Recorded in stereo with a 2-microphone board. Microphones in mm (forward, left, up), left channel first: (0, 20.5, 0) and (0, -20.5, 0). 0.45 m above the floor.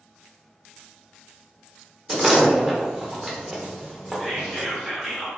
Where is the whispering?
Centre (ahead or behind), 1.4 m.